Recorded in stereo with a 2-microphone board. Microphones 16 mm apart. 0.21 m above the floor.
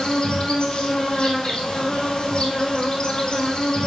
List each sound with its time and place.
0.0 s an insect: 60° left (ahead or behind), 2.5 m